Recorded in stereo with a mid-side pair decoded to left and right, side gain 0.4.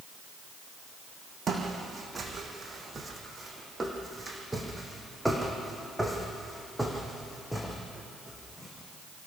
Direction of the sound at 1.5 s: 40° right.